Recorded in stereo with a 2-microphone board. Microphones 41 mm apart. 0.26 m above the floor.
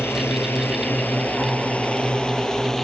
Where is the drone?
70° left (ahead or behind); by 2.9 s 10° left (ahead or behind).